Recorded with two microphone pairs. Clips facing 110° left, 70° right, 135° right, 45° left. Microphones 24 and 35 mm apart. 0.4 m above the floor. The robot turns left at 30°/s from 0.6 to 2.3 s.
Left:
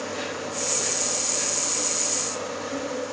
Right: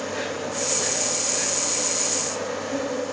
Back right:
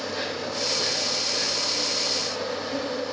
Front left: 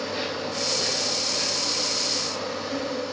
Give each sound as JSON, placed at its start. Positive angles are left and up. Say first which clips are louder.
{"t": 0.0, "sound": "an insect", "louder": "right 2 dB, front left 1 dB", "azimuth_deg": -20, "distance_m": 2.0}